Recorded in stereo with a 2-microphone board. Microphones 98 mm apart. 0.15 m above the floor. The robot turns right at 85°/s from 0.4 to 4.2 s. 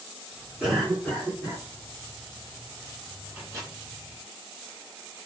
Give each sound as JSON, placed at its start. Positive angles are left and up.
{"t": 0.6, "sound": "a cough", "azimuth_deg": -15, "distance_m": 1.9}
{"t": 3.3, "sound": "a microwave", "side_deg": -20, "distance_m": 1.3}